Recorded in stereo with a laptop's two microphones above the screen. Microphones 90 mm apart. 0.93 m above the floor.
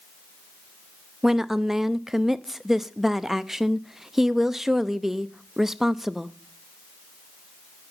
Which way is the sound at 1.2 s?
5° right (ahead or behind).